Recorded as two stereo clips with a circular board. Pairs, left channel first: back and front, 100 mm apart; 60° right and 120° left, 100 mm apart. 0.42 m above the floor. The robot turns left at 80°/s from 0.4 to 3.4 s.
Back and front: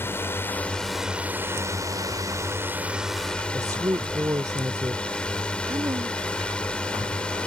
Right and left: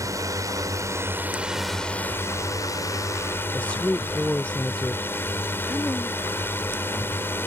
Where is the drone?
130° left; by 7.5 s 110° right.